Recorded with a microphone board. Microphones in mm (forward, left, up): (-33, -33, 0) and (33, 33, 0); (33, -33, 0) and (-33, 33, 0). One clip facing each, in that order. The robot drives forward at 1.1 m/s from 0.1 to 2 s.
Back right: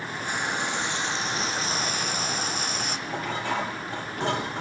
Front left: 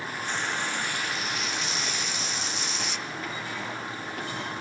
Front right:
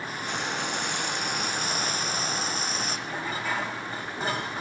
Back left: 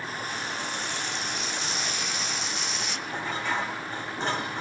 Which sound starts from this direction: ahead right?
Frying, at 0.2 s.